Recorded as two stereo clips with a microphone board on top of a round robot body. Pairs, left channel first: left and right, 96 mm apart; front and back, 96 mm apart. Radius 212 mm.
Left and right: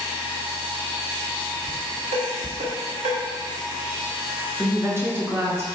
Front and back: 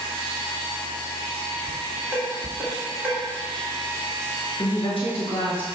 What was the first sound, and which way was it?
Dishes clattering, 100° right.